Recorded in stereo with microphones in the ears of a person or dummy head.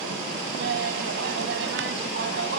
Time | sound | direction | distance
0.6 | laughter | 70° right (ahead or behind) | ?